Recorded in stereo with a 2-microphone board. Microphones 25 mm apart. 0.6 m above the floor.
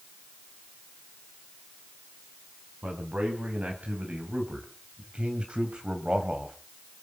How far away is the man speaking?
About 4 m.